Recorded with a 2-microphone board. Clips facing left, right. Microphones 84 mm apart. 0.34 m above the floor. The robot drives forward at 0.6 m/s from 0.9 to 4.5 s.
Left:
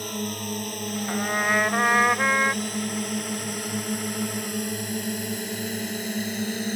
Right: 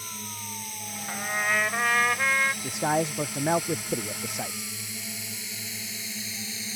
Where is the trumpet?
20° left (ahead or behind); by 2.5 s 30° left (ahead or behind).